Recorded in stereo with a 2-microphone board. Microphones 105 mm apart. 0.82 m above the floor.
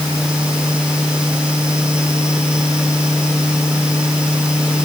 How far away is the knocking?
No knocking in this recording.